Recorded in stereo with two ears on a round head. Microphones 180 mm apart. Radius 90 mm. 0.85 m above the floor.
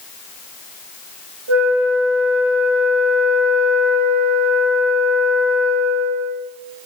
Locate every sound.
1.5 s a flute: 80° right, 2 m